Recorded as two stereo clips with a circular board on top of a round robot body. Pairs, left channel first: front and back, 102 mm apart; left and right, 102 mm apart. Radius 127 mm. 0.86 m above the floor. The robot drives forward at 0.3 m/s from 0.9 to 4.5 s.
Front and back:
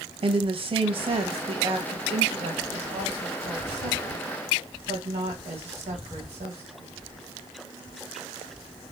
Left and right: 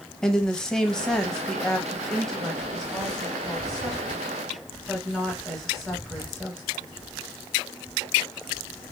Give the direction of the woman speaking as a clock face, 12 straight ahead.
6 o'clock.